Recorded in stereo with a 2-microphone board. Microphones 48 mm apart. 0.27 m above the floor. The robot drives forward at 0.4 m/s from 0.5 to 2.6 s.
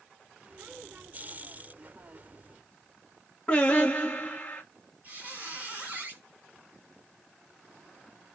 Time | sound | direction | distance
3.5 | singing | 25° left (ahead or behind) | 1.1 m
5.0 | a squeak | 35° right (ahead or behind) | 1.8 m